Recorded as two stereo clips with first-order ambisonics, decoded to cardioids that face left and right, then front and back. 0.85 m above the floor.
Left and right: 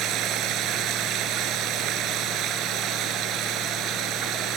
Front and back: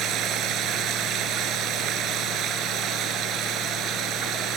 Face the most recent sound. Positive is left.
turn(degrees=-135)